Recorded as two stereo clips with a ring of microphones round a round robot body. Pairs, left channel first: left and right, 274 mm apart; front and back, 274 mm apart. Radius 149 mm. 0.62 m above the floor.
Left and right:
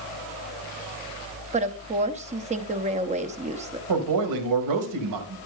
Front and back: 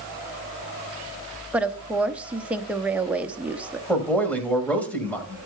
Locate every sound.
1.5 s a woman speaking: 100° right, 0.8 m
3.9 s a man speaking: 85° right, 2.5 m